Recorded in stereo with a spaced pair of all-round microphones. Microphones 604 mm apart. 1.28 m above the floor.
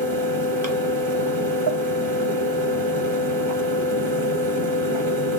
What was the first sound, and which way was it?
A fan, 45° right (ahead or behind).